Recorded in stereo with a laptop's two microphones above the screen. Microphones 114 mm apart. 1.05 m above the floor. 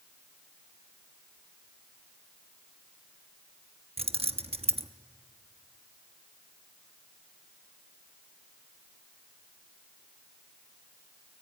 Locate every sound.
4.0 s keys jangling: 60° right (ahead or behind), 0.8 m